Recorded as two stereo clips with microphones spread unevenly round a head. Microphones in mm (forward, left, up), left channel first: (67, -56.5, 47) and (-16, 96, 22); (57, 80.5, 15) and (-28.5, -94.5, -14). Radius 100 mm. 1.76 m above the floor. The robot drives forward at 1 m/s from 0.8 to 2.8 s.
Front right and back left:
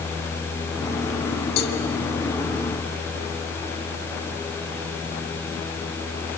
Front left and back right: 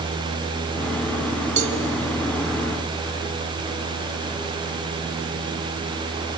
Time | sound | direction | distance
1.6 | a cowbell | 60° right | 1.9 m